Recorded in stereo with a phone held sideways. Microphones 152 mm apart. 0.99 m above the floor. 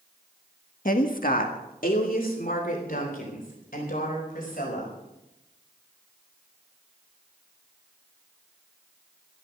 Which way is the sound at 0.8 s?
60° left (ahead or behind).